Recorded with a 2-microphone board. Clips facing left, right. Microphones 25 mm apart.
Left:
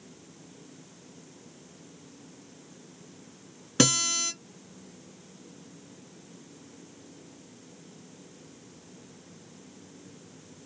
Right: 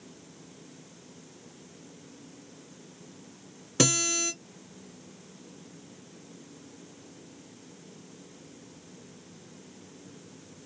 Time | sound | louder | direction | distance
3.8 | a guitar | left 1 dB | 20° left (ahead or behind) | 1.7 m